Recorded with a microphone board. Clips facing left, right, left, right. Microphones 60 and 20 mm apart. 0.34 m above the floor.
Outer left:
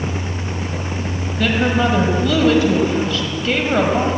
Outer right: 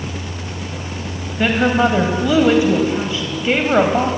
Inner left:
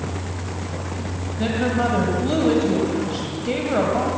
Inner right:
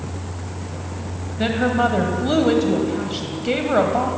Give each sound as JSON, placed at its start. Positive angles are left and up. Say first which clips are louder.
{"t": 1.4, "sound": "a woman speaking", "louder": "outer right 2 dB, inner right 3 dB", "side_deg": -20, "distance_m": 2.0}